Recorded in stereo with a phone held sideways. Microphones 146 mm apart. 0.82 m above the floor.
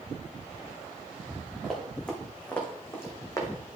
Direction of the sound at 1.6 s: 5° left (ahead or behind).